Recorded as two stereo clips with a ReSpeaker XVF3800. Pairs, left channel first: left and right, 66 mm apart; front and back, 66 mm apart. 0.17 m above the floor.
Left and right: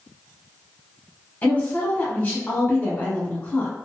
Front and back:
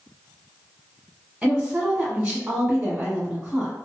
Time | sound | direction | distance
1.4 | a woman speaking | 110° left | 1.4 m